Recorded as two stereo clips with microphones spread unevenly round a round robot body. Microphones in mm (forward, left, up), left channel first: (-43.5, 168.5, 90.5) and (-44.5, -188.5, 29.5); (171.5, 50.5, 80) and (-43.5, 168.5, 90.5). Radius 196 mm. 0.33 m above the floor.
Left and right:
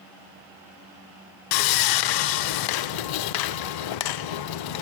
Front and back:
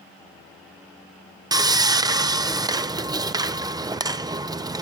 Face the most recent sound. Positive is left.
turn(degrees=75)